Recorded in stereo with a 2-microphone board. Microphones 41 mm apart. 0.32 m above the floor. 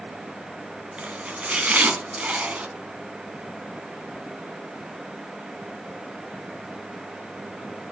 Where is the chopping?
35° right (ahead or behind), 2 m.